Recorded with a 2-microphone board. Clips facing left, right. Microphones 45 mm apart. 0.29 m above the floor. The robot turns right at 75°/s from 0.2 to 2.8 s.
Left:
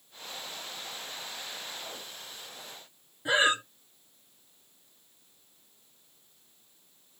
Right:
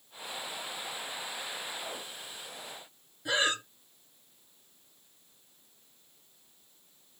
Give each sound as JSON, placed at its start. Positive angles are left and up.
{"t": 3.2, "sound": "breathing", "side_deg": 25, "distance_m": 0.7}